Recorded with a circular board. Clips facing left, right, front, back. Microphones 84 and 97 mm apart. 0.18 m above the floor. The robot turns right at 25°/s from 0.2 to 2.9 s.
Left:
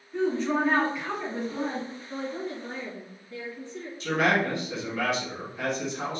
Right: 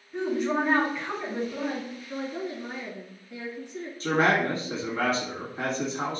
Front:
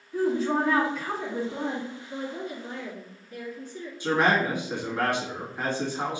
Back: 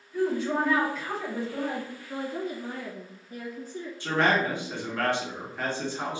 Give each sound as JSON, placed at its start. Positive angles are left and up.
{"t": 0.1, "sound": "a woman speaking", "azimuth_deg": -10, "distance_m": 1.9}
{"t": 2.1, "sound": "a woman speaking", "azimuth_deg": 180, "distance_m": 1.6}
{"t": 4.0, "sound": "a man speaking", "azimuth_deg": -65, "distance_m": 1.8}